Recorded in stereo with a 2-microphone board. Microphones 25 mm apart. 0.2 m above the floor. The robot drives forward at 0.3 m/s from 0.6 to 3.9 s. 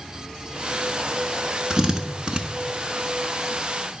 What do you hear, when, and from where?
1.7 s a drill: 30° right (ahead or behind), 1.0 m; by 2.4 s 35° right (ahead or behind), 0.8 m